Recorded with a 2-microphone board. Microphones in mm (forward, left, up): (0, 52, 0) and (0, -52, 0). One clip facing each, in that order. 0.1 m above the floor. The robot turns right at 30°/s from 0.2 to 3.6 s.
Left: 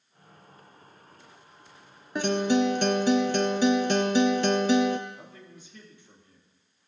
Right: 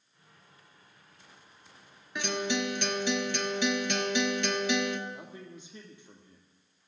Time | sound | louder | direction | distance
2.1 | a guitar | left 8 dB | 70° left | 0.9 m
5.1 | a man speaking | right 2 dB | 25° right (ahead or behind) | 3 m